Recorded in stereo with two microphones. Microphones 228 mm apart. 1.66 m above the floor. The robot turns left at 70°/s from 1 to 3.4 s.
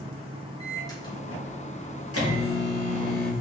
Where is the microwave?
165° left, 1.9 m; by 3.3 s straight ahead, 1.9 m.